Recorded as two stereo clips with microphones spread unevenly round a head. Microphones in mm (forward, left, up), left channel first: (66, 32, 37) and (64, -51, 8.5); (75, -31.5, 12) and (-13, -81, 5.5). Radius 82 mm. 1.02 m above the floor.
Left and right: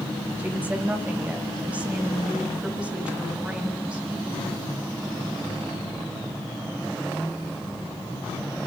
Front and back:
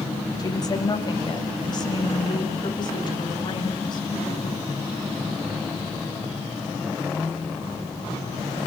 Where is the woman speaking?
20° right, 6 m; by 4.5 s 15° right, 10 m.